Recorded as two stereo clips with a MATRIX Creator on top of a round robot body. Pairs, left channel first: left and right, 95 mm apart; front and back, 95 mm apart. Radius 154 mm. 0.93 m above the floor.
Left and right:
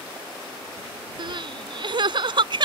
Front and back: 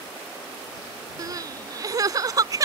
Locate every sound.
1.2 s crying: 125° right